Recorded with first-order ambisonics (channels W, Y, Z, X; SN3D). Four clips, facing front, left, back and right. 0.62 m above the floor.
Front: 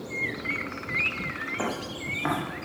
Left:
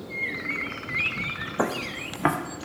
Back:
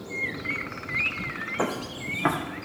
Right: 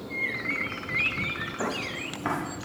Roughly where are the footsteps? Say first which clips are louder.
Left 6 dB, back 2 dB; left.